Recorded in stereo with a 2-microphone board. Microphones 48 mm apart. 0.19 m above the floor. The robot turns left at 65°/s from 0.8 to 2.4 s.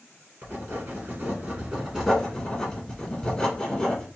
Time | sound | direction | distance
0.4 | writing | 95° right | 2 m